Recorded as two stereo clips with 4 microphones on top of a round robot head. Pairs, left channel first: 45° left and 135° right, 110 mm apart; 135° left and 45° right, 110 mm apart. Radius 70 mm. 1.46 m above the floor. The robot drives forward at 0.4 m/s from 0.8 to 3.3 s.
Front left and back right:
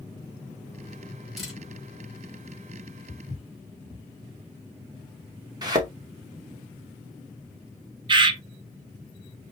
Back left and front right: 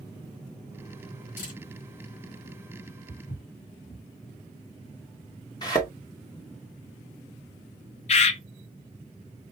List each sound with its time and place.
1.4 s a camera shutter: 135° left, 4 m
3.1 s footsteps: 160° left, 2.5 m
5.6 s a thud: straight behind, 0.9 m
8.1 s a bird: 170° left, 0.5 m